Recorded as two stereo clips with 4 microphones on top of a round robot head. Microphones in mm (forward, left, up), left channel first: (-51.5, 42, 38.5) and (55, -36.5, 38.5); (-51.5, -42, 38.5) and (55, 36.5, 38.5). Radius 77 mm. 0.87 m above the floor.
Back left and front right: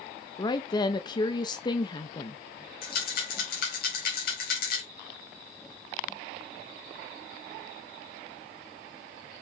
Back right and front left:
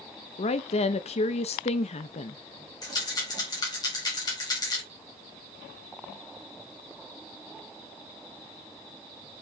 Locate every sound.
0.4 s a woman speaking: 165° right, 0.6 m
2.8 s a rattle: 155° left, 3.5 m